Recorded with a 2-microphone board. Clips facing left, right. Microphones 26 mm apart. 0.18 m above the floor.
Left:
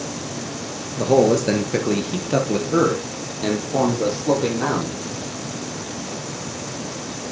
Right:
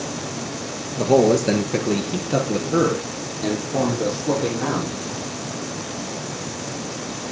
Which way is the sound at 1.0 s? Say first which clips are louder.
Even; 5° right (ahead or behind).